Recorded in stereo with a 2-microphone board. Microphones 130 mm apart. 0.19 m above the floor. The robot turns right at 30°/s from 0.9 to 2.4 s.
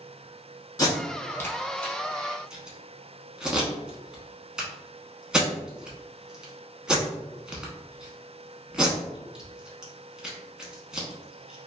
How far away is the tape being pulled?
About 0.8 m.